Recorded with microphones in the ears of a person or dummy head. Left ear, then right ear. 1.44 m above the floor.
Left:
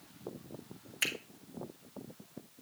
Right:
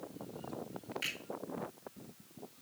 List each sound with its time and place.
1.0 s a finger snap: 40° left (ahead or behind), 2 m